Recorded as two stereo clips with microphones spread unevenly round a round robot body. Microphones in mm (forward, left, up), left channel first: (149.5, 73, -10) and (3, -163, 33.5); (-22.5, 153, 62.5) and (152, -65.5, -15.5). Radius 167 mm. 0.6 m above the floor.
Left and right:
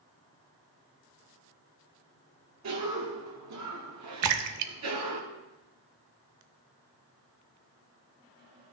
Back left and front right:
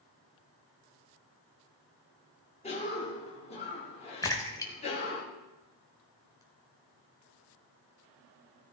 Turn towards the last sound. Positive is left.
turn(degrees=-155)